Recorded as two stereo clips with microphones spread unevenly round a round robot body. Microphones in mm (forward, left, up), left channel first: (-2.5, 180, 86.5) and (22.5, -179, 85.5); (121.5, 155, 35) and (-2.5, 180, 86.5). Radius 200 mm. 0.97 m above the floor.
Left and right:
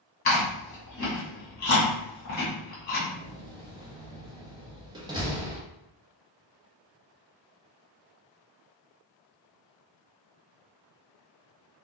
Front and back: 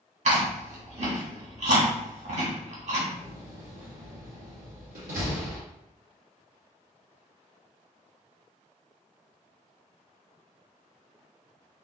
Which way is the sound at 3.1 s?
165° right.